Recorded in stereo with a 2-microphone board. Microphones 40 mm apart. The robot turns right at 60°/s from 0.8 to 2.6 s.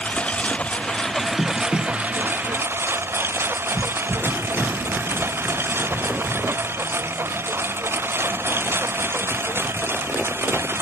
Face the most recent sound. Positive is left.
turn(degrees=-105)